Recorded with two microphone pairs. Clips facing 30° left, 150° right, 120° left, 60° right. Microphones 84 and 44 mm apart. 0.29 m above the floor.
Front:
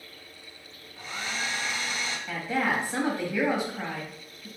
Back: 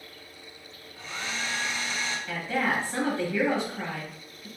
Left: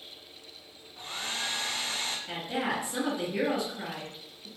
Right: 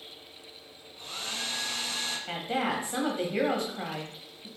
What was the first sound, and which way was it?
A hair dryer, 110° left.